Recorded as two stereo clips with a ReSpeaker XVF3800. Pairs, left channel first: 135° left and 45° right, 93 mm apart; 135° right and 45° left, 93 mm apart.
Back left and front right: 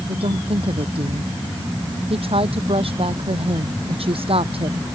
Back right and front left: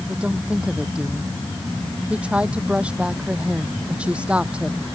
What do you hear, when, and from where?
0.1 s a woman speaking: 35° right